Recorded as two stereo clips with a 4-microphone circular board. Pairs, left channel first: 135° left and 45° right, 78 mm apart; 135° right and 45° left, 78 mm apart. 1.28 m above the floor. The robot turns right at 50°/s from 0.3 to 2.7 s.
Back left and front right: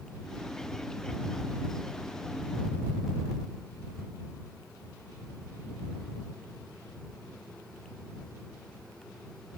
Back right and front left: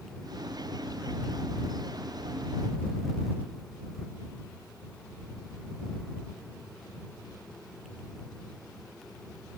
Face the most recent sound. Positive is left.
No sound to turn to.